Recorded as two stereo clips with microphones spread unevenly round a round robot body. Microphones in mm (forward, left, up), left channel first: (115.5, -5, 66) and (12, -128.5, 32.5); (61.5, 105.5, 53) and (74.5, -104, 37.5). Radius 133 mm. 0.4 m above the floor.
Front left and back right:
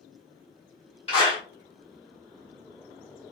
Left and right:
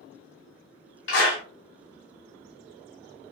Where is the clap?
115° left, 1.5 m.